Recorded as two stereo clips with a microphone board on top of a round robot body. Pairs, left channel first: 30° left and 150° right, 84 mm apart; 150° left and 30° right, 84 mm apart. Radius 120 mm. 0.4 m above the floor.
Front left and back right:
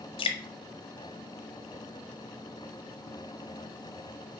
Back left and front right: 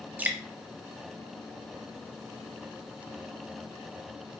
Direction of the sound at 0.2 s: 40° left.